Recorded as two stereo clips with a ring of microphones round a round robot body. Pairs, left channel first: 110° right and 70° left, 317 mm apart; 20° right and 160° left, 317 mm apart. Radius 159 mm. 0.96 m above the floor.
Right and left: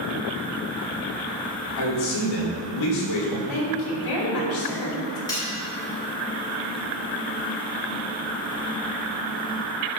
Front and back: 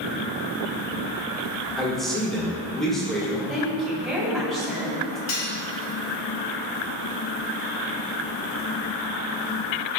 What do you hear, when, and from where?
1.8 s a man speaking: 110° right, 2.5 m
3.5 s a woman speaking: 110° right, 2.5 m
5.3 s cutlery clinking: 35° right, 2.5 m